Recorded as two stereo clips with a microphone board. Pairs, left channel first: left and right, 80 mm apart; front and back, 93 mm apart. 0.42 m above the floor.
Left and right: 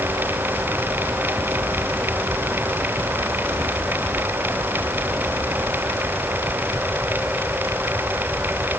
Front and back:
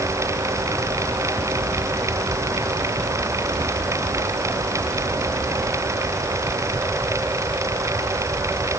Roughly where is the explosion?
I don't hear an explosion.